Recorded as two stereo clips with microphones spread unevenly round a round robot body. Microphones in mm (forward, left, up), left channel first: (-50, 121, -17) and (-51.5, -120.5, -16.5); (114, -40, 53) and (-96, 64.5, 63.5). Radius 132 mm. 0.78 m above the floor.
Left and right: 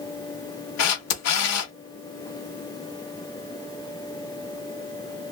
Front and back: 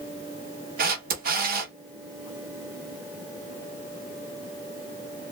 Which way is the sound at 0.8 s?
105° left.